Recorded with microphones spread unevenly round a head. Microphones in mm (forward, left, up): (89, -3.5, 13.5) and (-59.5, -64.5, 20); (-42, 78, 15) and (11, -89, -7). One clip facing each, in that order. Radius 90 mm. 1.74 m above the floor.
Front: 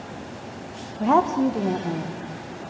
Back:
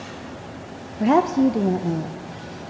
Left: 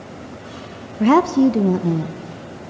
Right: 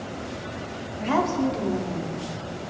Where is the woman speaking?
130° left, 0.7 m.